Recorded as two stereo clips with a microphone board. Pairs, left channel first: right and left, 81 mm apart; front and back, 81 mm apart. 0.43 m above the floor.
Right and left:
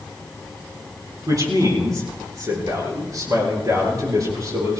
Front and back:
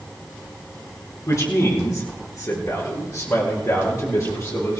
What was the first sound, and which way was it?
A man speaking, 45° left.